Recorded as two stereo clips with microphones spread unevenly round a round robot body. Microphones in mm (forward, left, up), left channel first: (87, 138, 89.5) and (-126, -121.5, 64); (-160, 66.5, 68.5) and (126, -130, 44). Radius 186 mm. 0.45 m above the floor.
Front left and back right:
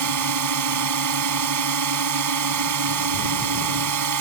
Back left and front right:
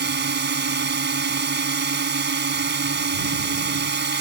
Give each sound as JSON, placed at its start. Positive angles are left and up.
{"t": 0.0, "sound": "a drone", "azimuth_deg": -95}